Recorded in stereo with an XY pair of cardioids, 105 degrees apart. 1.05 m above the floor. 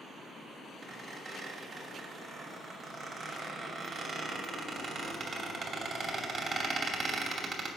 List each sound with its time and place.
0.8 s a squeak: 50° right, 2.5 m